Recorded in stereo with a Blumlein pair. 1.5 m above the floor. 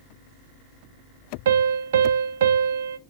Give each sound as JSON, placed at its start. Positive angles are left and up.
{"t": 1.4, "sound": "a piano", "azimuth_deg": -60, "distance_m": 0.6}